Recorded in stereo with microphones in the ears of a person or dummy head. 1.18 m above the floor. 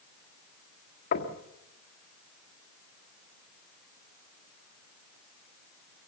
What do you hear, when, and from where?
1.1 s knocking: 50° left (ahead or behind), 1.9 m